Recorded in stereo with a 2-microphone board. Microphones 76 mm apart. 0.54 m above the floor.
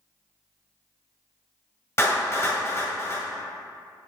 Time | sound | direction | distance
2.0 | a clap | 40° left (ahead or behind) | 1.8 m